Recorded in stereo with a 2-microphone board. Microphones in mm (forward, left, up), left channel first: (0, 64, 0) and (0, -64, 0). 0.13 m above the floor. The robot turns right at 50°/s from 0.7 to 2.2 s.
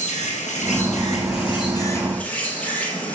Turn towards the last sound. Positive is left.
turn(degrees=170)